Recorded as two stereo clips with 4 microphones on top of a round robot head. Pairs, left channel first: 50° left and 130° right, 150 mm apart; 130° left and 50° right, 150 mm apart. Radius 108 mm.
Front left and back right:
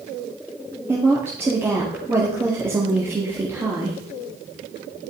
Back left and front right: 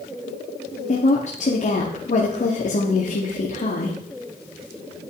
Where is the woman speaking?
160° left, 1.9 m.